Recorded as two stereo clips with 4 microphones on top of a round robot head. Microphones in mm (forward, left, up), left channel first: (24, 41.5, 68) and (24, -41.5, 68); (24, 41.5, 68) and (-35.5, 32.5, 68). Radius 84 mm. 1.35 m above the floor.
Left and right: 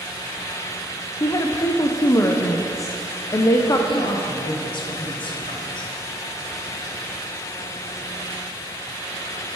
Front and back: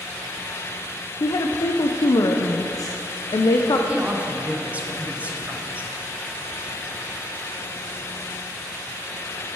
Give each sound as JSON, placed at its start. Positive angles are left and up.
{"t": 1.2, "sound": "a woman speaking", "azimuth_deg": 35, "distance_m": 0.5}
{"t": 3.9, "sound": "a woman speaking", "azimuth_deg": 120, "distance_m": 1.1}